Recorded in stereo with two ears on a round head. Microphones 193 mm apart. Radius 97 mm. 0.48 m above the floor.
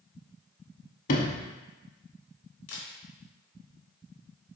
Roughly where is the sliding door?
Left.